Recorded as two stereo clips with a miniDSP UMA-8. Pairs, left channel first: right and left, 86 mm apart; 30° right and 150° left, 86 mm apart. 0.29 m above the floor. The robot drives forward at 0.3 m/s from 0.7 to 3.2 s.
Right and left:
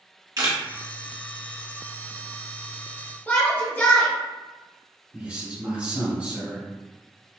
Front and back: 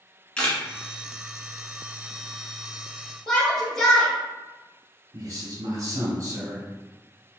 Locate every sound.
0.4 s a camera shutter: 50° left, 1.1 m
3.3 s a shout: 100° right, 1.1 m
5.1 s a man speaking: 150° left, 1.4 m